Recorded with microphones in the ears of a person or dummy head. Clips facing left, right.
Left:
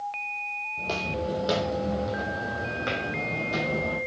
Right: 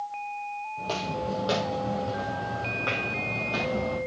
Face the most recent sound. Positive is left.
turn(degrees=30)  # may be behind; listen again after turning